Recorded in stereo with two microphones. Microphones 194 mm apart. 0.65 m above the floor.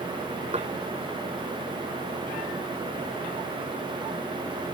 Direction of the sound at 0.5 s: 35° right (ahead or behind).